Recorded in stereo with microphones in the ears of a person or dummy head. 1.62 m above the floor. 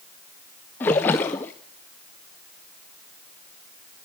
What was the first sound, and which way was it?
A splash, 10° left (ahead or behind).